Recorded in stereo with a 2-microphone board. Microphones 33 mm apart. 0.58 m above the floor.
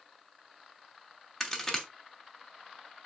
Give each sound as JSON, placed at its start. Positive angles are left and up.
{"t": 1.4, "sound": "a crack", "side_deg": 10, "distance_m": 0.9}